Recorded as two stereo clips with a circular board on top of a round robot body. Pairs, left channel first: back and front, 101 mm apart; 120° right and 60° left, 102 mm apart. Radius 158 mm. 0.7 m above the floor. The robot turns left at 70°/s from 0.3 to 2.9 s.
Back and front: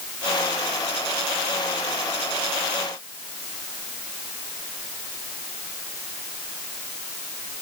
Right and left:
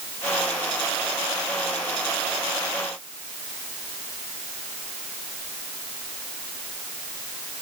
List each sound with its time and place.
Only background noise.